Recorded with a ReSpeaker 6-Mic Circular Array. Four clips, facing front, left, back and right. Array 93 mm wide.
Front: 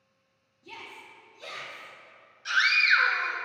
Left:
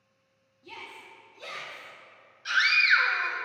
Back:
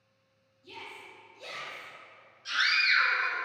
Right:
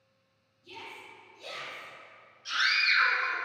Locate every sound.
0.6 s a shout: 50° left, 3.5 m; by 1.9 s 60° left, 4.5 m
2.5 s a scream: 50° left, 2.5 m